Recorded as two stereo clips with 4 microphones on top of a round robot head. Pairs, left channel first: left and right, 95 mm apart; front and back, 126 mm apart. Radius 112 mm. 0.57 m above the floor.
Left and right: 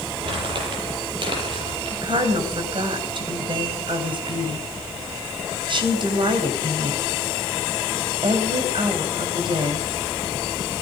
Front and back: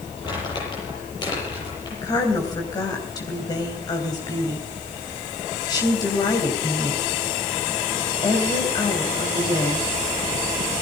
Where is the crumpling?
60° right, 8.5 m.